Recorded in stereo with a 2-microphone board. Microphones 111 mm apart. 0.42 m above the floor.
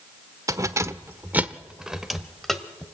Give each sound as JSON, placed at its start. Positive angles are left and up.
{"t": 0.5, "sound": "keys jangling", "side_deg": -30, "distance_m": 0.9}